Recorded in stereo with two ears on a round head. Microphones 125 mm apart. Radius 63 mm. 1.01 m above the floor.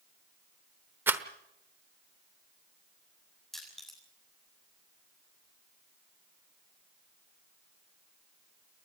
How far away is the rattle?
About 1.0 m.